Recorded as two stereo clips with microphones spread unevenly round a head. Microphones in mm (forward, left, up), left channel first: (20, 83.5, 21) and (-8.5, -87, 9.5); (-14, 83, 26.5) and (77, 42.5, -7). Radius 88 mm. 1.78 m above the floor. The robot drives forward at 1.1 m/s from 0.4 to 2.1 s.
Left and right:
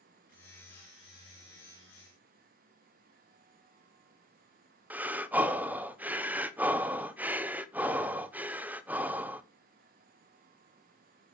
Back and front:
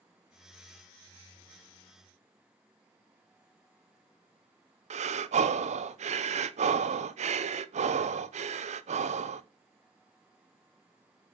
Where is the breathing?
15° right, 1.1 m.